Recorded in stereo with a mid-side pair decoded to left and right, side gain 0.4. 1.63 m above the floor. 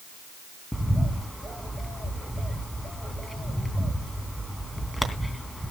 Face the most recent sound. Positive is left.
turn(degrees=10)